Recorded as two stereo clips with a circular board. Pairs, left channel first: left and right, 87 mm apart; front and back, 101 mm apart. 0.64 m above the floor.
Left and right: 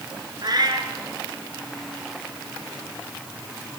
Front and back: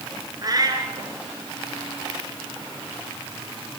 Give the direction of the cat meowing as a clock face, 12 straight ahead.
4 o'clock.